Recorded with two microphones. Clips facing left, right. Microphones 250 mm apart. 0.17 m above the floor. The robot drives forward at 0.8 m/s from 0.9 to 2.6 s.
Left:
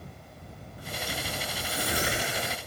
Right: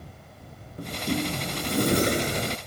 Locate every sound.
0.8 s a sliding door: 60° right (ahead or behind); by 2.6 s 35° right (ahead or behind)